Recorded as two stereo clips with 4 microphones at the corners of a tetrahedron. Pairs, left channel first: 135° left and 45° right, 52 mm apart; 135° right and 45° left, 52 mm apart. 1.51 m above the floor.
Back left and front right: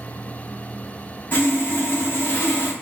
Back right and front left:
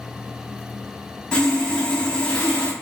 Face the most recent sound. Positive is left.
turn(degrees=160)